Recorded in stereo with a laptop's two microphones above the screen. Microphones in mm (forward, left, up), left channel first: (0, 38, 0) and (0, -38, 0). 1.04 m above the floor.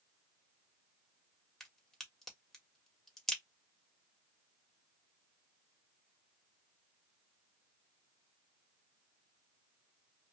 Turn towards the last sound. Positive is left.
turn(degrees=5)  # may be behind; listen again after turning